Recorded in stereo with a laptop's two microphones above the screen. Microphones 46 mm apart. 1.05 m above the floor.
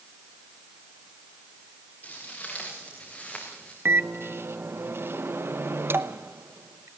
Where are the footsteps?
35° left (ahead or behind), 5.5 m; by 3.8 s 25° left (ahead or behind), 4 m.